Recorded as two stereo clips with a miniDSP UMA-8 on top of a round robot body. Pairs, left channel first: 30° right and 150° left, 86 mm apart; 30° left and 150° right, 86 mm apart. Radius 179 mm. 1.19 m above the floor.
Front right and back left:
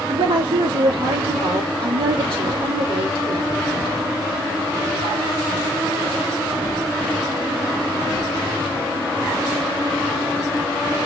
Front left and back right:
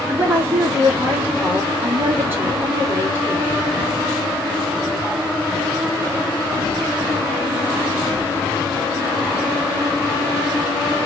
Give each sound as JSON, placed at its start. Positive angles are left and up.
{"t": 0.1, "sound": "a woman speaking", "azimuth_deg": 145, "distance_m": 2.5}